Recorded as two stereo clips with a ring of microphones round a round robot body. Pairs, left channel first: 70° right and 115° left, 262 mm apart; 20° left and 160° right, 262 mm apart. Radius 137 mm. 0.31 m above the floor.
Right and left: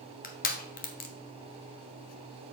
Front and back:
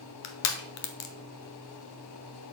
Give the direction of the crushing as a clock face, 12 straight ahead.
12 o'clock.